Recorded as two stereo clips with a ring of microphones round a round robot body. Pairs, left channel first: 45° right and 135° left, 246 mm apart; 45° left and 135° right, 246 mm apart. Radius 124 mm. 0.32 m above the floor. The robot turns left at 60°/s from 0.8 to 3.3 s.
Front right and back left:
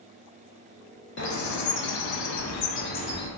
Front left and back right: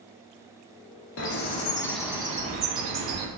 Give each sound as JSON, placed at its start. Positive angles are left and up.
{"t": 1.2, "sound": "a bird", "azimuth_deg": 5, "distance_m": 0.7}